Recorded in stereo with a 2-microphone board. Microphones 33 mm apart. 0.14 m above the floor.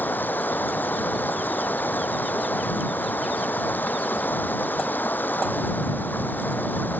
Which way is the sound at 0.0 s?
80° left.